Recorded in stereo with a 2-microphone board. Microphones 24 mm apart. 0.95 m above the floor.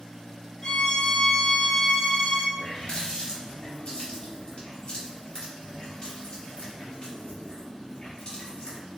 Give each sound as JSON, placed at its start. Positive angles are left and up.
{"t": 0.6, "sound": "a violin", "side_deg": 40, "distance_m": 1.5}
{"t": 2.6, "sound": "a running tap", "side_deg": 45, "distance_m": 1.5}